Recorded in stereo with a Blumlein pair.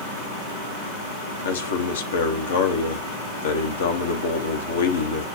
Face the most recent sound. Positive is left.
turn(degrees=65)